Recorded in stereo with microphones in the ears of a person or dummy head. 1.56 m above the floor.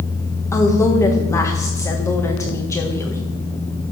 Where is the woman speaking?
5° left (ahead or behind), 1.1 m.